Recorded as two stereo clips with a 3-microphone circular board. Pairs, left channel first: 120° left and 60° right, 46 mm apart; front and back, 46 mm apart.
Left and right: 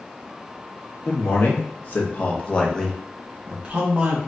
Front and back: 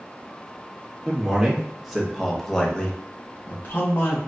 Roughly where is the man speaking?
Left.